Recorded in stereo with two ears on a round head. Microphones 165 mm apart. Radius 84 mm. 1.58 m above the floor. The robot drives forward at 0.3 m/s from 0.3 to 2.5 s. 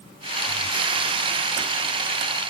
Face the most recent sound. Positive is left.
No sound to turn to.